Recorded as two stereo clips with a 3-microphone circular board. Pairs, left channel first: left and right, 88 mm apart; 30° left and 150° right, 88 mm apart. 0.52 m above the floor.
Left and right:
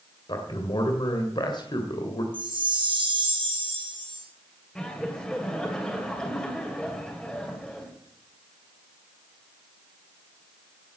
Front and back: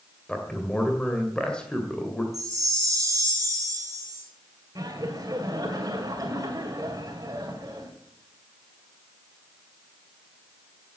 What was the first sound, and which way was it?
A man speaking, 110° left.